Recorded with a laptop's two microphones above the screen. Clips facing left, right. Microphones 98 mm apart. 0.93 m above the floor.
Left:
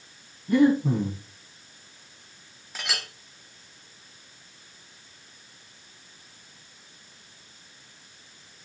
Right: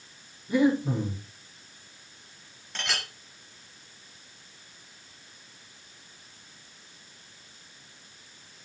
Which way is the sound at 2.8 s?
5° left (ahead or behind).